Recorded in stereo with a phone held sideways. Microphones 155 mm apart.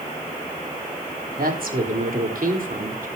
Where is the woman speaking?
75° right (ahead or behind), 4 m; by 3.1 s 65° right (ahead or behind), 4.5 m.